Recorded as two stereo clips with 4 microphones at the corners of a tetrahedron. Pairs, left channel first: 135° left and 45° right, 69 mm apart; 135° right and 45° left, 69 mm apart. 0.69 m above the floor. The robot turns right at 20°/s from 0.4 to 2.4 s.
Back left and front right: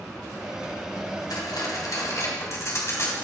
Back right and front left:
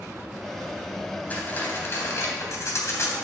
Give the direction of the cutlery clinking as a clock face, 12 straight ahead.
7 o'clock.